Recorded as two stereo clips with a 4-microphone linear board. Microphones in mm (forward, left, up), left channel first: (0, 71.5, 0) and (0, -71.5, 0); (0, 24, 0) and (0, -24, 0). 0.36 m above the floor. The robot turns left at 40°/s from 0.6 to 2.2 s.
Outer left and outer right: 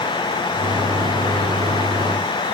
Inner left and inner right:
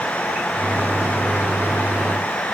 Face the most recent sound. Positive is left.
No sound to turn to.